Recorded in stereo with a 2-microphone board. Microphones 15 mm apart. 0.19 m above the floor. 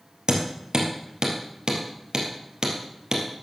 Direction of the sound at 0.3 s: 55° right (ahead or behind).